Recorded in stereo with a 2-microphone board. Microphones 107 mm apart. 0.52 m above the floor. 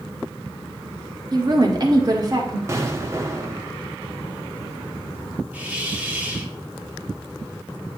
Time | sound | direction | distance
1.3 | a woman speaking | 40° right (ahead or behind) | 0.9 m
2.7 | an explosion | 25° right (ahead or behind) | 0.8 m
5.5 | a hiss | 15° right (ahead or behind) | 0.7 m